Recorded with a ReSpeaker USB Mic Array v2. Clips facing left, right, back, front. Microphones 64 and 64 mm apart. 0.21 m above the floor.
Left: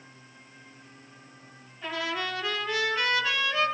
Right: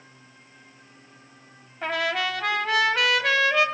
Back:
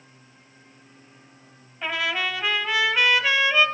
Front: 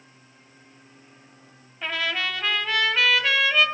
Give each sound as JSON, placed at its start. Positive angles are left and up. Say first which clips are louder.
{"t": 1.8, "sound": "a trumpet", "louder": "right 6 dB, back 1 dB", "azimuth_deg": -90, "distance_m": 2.0}